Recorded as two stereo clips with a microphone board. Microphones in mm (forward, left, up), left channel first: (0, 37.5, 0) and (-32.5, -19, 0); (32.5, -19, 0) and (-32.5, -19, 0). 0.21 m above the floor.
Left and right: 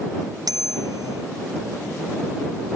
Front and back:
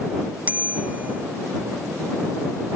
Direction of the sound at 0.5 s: 115° right.